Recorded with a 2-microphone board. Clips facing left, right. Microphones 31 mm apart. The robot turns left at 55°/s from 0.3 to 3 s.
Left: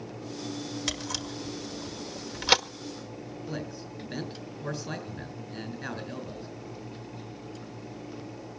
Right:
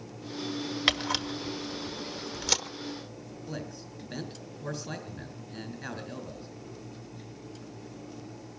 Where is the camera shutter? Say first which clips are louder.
Right 10 dB; 40° right (ahead or behind), 1.2 m; by 2.6 s 40° left (ahead or behind), 1.2 m.